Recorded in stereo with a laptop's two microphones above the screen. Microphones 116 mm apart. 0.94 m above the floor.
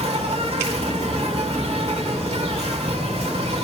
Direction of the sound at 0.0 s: 65° right (ahead or behind).